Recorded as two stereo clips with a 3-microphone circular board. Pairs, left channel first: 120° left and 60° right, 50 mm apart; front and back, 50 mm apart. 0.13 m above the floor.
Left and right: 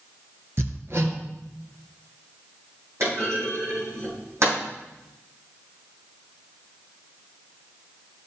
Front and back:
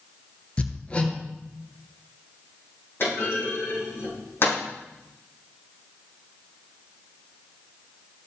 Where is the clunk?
40° right, 5 m.